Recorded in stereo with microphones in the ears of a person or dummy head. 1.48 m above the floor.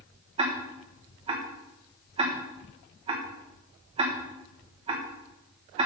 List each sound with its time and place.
0.4 s ticking: 30° right (ahead or behind), 1.4 m